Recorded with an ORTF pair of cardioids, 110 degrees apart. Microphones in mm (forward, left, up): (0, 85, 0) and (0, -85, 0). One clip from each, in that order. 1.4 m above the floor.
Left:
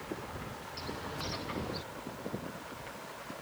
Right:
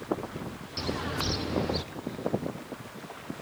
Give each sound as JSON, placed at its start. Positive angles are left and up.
{"t": 0.8, "sound": "a bird", "azimuth_deg": -45}